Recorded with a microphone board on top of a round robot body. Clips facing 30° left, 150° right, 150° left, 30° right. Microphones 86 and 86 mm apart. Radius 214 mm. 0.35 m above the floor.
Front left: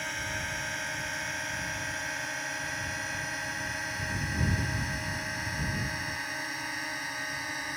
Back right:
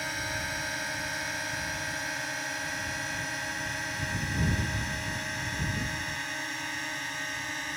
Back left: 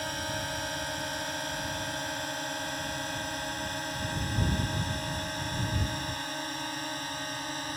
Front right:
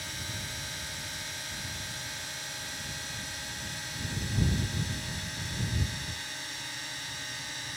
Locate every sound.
0.0 s a drone: 125° left; by 7.8 s 115° left